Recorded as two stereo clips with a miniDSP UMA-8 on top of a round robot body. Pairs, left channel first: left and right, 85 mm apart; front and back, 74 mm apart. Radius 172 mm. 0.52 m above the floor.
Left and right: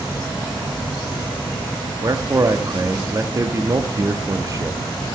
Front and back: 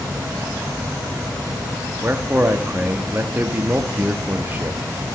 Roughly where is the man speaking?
Behind right.